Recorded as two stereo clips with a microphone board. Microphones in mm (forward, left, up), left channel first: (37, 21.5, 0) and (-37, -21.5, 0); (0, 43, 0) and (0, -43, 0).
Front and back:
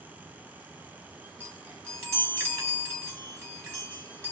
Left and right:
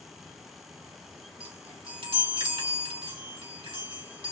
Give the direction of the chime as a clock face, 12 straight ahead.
3 o'clock.